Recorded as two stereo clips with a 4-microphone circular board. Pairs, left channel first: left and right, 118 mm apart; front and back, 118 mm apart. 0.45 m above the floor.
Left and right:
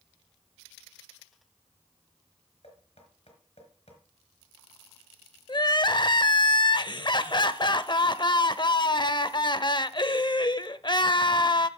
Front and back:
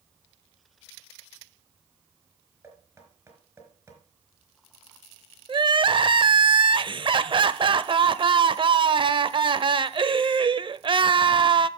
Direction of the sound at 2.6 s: 110° left.